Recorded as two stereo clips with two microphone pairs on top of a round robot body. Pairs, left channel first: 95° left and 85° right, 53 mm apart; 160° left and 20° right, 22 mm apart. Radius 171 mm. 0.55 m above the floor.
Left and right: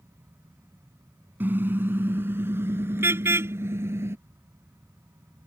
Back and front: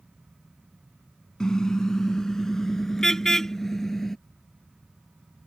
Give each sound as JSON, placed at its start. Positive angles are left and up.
{"t": 1.4, "sound": "a car horn", "azimuth_deg": -140}